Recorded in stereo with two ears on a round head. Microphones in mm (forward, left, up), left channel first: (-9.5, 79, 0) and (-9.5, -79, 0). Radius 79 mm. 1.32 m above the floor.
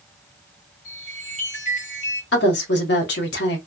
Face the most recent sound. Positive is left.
turn(degrees=65)  # may be behind; listen again after turning